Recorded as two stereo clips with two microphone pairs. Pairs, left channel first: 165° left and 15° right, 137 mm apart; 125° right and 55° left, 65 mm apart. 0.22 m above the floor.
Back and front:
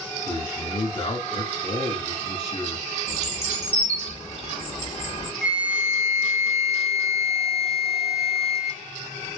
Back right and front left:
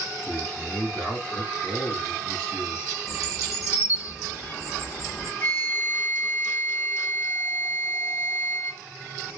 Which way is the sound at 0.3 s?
160° left.